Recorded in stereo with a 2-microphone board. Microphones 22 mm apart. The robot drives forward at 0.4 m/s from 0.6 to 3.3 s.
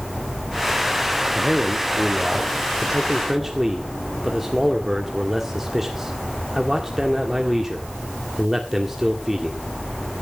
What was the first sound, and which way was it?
A man speaking, 15° right (ahead or behind).